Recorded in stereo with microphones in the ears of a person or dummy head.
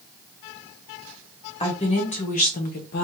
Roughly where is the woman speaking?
Left.